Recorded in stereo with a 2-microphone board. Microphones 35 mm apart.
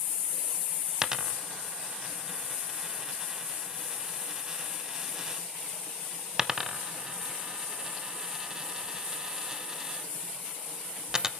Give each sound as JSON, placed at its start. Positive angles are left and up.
{"t": 1.0, "sound": "a dropped coin", "side_deg": -15, "distance_m": 0.8}